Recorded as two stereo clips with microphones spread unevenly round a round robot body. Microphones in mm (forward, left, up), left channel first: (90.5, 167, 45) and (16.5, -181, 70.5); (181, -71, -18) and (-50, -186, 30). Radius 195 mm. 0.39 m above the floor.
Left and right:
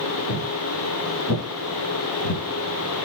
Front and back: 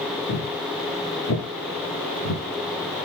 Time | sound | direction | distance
0.3 | footsteps | 45° left | 3 m